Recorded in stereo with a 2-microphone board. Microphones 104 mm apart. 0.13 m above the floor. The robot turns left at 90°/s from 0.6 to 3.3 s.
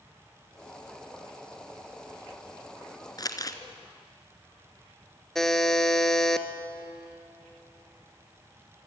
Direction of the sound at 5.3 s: 5° left (ahead or behind).